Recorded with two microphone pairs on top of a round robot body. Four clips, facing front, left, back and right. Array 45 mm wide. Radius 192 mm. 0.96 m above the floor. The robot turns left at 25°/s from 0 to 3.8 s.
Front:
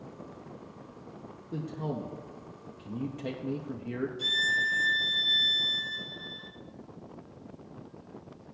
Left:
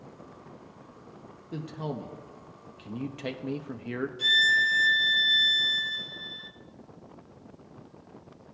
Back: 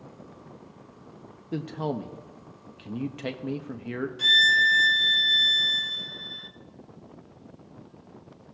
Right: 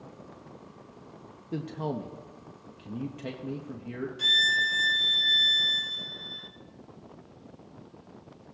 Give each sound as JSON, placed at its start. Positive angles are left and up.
{"t": 1.5, "sound": "a man speaking", "azimuth_deg": -170, "distance_m": 0.7}
{"t": 4.2, "sound": "a violin", "azimuth_deg": -155, "distance_m": 0.7}